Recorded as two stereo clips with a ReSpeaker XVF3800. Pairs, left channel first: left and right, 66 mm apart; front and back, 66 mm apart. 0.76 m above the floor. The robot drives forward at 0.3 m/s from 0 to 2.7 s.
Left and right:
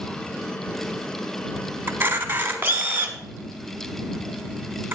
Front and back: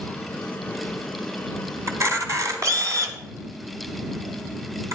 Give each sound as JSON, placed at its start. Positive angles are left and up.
{"t": 1.9, "sound": "a camera shutter", "azimuth_deg": -140, "distance_m": 1.1}